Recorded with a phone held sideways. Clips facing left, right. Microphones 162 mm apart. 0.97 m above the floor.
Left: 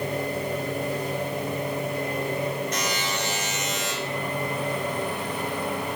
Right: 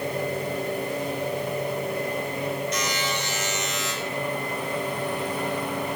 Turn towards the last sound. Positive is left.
turn(degrees=50)  # may be behind; listen again after turning